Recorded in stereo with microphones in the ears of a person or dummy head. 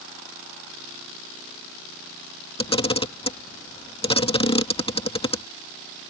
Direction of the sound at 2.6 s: 20° left (ahead or behind).